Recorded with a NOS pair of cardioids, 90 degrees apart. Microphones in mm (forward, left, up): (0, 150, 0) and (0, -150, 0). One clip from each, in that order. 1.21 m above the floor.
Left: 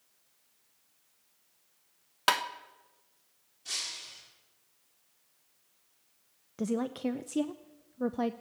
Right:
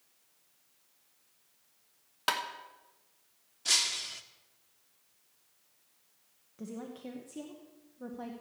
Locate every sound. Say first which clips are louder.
2.3 s tapping: left 4 dB; 30° left, 1.2 m
3.6 s breaking glass: right 8 dB; 65° right, 1.7 m
6.6 s a woman speaking: left 11 dB; 60° left, 0.7 m